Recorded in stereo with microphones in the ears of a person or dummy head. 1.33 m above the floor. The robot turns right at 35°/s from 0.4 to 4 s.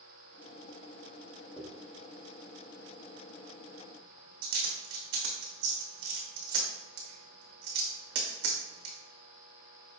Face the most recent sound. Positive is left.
turn(degrees=-65)  # may be behind; listen again after turning